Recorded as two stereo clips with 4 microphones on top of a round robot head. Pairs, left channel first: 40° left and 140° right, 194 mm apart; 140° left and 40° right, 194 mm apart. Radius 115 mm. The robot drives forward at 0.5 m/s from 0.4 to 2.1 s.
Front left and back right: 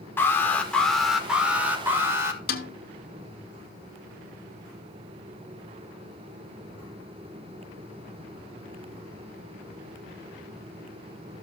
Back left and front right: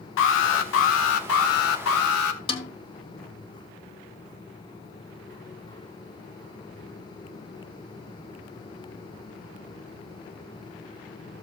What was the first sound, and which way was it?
An alarm, 120° left.